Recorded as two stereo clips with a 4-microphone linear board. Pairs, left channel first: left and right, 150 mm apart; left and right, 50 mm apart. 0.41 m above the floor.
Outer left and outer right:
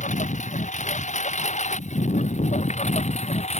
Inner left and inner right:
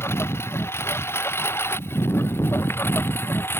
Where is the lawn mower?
55° left (ahead or behind); by 3.6 s 45° left (ahead or behind).